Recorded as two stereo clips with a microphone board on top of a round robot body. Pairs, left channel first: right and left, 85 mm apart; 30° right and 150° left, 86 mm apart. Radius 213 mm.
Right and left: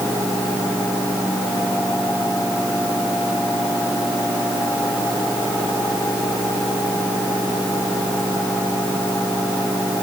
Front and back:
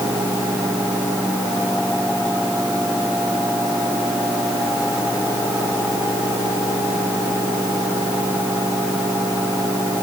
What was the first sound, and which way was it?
Only background noise.